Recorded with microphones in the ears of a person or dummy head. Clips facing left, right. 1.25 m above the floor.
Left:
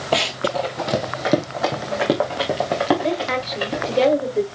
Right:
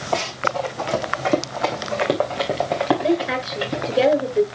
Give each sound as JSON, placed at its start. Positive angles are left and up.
{"t": 0.1, "sound": "running footsteps", "side_deg": 35, "distance_m": 1.4}
{"t": 3.0, "sound": "a woman speaking", "side_deg": 0, "distance_m": 5.5}